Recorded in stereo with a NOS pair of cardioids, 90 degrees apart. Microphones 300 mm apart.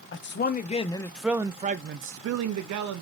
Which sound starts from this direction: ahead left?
A man speaking, at 0.1 s.